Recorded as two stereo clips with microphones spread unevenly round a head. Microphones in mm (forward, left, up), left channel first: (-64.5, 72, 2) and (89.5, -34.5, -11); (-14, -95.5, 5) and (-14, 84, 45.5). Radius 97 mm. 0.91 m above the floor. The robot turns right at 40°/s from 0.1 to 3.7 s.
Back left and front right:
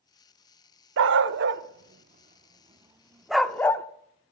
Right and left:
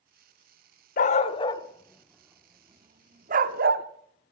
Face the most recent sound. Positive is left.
turn(degrees=70)